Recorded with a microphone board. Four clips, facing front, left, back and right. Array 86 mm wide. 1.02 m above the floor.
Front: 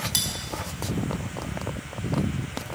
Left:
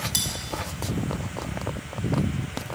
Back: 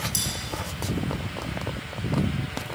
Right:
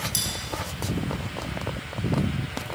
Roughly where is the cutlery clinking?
Ahead left.